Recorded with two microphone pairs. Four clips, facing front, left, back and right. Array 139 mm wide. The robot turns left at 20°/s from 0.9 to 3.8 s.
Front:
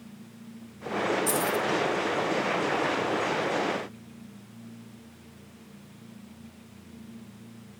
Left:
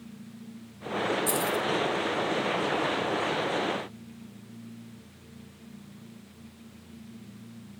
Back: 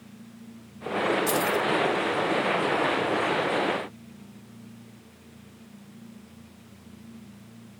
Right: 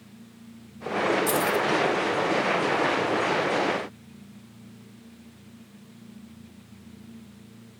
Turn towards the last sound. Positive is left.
turn(degrees=180)